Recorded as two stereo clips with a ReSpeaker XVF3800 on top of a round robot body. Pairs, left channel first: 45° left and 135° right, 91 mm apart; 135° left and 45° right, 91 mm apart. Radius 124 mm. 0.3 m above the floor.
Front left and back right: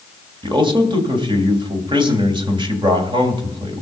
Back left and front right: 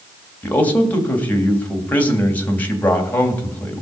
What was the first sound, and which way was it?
A man speaking, 155° right.